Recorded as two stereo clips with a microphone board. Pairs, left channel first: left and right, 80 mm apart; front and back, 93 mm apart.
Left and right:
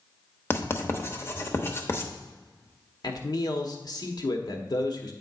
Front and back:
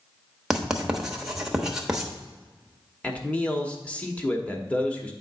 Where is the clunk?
No clunk in this recording.